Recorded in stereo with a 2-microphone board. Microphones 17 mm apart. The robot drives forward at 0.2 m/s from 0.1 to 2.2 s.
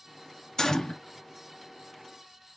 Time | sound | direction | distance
0.6 | a gunshot | 30° left (ahead or behind) | 0.6 m